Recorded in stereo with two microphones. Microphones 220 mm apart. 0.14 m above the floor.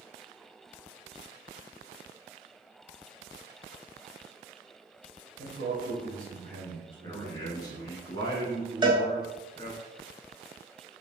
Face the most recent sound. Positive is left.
turn(degrees=-20)  # may be behind; listen again after turning